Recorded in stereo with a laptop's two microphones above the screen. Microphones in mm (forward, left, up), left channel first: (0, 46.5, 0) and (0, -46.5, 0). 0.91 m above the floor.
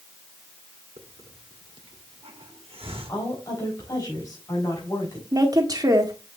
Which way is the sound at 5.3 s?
40° right (ahead or behind).